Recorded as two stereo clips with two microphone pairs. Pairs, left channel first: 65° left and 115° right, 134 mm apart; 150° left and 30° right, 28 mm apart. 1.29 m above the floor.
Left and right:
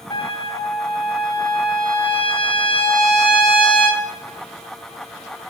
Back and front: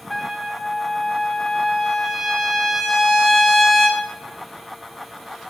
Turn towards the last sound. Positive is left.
turn(degrees=70)